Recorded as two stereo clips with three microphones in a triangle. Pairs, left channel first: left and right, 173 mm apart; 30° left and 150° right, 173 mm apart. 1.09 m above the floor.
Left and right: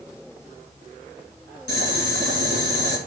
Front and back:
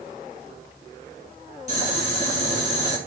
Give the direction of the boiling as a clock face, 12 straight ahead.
3 o'clock.